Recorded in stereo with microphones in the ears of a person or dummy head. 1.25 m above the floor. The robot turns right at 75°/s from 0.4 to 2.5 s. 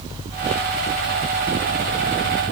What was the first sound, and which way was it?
Only background noise.